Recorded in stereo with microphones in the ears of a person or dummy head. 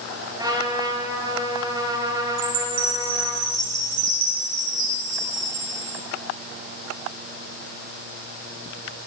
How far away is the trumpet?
About 6 m.